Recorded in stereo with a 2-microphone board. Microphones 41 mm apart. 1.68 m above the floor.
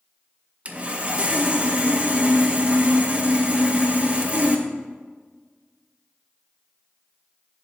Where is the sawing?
35° right (ahead or behind), 0.7 m.